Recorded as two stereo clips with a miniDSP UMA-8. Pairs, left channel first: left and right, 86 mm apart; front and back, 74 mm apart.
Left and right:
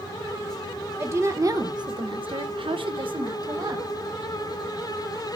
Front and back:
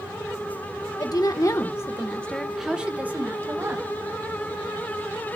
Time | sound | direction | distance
1.0 | a woman speaking | 30° right | 1.7 m